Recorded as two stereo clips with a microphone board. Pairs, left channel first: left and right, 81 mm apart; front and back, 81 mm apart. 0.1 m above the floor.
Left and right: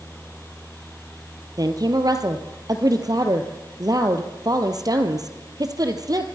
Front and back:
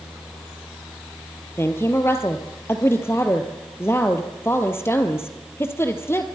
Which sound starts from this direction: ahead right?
A woman speaking, at 1.6 s.